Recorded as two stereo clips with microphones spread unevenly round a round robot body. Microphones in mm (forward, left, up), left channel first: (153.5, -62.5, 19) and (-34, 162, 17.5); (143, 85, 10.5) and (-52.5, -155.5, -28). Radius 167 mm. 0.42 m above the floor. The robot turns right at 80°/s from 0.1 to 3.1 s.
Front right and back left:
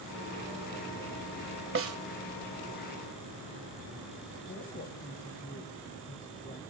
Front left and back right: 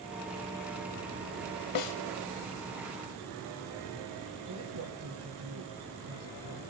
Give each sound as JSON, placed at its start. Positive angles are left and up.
{"t": 1.8, "sound": "a snare drum", "azimuth_deg": 85, "distance_m": 1.4}
{"t": 4.5, "sound": "a woman speaking", "azimuth_deg": -110, "distance_m": 1.9}